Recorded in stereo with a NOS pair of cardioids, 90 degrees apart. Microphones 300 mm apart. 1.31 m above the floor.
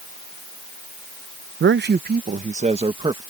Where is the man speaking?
40° right; by 3.2 s 15° right.